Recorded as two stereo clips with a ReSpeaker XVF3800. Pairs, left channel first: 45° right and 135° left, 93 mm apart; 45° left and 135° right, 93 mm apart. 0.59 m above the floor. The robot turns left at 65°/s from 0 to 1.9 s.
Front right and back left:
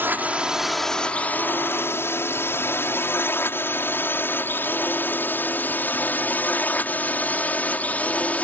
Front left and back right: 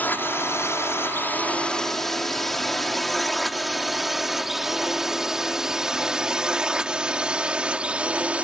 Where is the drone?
95° left; by 8.4 s 85° right.